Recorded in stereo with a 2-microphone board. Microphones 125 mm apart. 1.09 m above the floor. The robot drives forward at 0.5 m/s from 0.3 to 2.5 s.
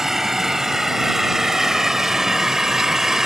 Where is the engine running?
Centre (ahead or behind); by 3.3 s 5° right (ahead or behind).